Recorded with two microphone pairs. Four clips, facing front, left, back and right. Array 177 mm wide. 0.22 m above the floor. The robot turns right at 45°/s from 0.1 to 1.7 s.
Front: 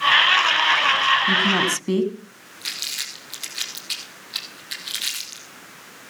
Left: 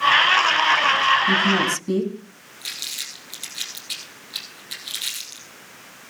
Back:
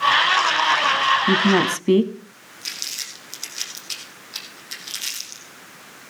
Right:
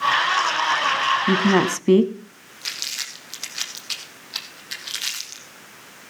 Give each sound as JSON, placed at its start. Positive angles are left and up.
{"t": 1.3, "sound": "a woman speaking", "azimuth_deg": -140, "distance_m": 1.6}
{"t": 2.6, "sound": "crumpling", "azimuth_deg": -70, "distance_m": 3.5}